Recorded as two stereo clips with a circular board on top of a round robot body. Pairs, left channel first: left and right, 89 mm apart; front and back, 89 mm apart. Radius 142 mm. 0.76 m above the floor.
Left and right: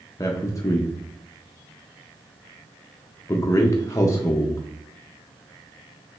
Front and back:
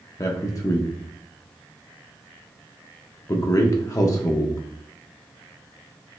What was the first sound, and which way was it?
A man speaking, 40° left.